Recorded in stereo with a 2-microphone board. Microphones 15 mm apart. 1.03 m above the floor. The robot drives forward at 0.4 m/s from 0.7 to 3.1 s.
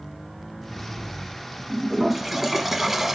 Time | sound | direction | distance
1.7 | a toilet flushing | 5° right (ahead or behind) | 1.2 m